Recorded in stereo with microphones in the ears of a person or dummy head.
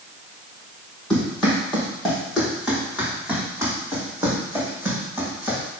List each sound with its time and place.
1.1 s running footsteps: 5° left (ahead or behind), 3.5 m; by 5.6 s 15° right (ahead or behind), 5 m